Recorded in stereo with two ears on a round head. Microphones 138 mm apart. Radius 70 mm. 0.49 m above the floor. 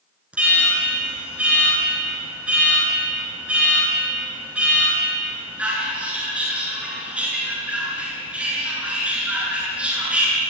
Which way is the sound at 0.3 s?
10° right (ahead or behind).